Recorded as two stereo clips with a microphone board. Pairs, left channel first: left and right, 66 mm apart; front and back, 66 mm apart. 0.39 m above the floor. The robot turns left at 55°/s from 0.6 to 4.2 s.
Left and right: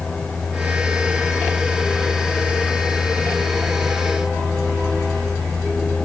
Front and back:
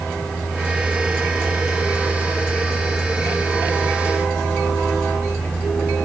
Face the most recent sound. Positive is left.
No sound to turn to.